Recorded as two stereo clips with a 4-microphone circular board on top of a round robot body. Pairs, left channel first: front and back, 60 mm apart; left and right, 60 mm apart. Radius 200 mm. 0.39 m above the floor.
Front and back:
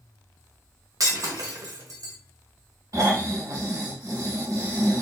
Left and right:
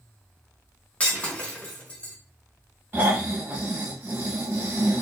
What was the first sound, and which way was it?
Breaking glass, 155° left.